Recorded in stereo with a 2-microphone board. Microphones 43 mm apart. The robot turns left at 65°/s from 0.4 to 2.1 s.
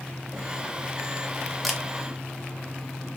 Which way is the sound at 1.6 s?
Centre (ahead or behind).